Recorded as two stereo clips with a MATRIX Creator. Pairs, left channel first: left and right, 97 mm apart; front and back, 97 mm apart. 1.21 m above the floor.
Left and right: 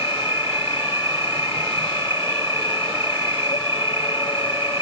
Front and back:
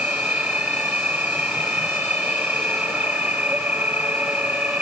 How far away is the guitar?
I don't hear a guitar.